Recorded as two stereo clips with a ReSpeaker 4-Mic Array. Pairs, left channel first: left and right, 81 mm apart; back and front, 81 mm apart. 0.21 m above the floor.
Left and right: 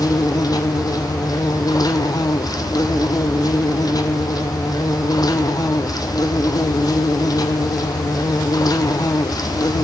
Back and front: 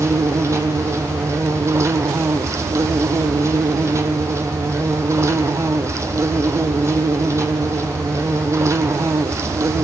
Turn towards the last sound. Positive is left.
turn(degrees=55)